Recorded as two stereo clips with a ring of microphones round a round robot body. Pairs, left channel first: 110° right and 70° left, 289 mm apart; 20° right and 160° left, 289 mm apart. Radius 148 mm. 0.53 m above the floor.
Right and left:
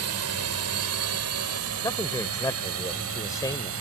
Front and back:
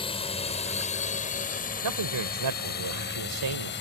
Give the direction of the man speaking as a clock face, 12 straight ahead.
6 o'clock.